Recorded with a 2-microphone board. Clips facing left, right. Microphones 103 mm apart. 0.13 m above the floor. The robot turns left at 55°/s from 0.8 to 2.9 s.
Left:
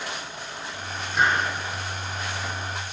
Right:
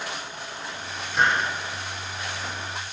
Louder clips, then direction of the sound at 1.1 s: Even; centre (ahead or behind).